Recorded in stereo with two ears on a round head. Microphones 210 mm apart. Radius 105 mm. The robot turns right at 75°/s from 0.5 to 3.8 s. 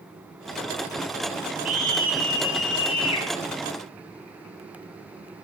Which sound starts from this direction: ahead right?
A scream, at 1.6 s.